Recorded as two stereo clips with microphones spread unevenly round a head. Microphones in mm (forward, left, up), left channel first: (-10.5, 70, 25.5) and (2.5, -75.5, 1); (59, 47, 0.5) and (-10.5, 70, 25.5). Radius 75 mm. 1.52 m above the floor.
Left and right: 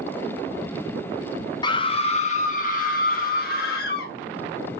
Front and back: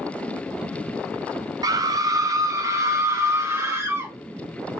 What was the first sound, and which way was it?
A scream, 150° left.